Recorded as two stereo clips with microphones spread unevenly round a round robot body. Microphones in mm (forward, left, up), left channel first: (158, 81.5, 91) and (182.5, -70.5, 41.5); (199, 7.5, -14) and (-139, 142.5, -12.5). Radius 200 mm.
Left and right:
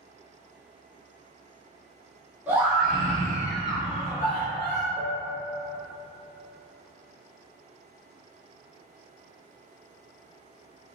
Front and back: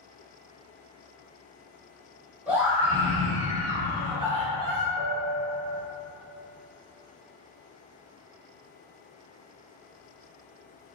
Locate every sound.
2.5 s a scream: 120° right, 1.1 m; by 4.9 s 85° left, 1.1 m
5.0 s a piano: 25° right, 0.7 m